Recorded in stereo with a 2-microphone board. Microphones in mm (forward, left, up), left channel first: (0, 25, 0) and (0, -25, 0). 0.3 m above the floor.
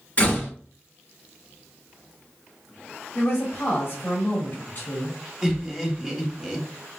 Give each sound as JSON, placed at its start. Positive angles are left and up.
{"t": 0.2, "sound": "a door slam", "side_deg": 30, "distance_m": 2.5}
{"t": 3.1, "sound": "a woman speaking", "side_deg": 40, "distance_m": 1.6}
{"t": 5.4, "sound": "laughter", "side_deg": 0, "distance_m": 1.7}